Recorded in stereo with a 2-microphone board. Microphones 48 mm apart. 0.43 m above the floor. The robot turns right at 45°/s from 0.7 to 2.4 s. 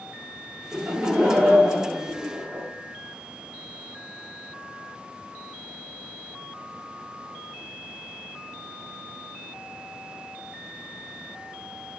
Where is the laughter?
15° right (ahead or behind), 0.8 m; by 2.6 s 20° right (ahead or behind), 0.8 m.